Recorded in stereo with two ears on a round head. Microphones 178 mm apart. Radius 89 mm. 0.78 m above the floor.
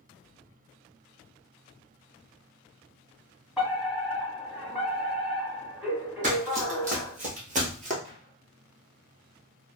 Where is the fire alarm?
Centre (ahead or behind), 1.5 m.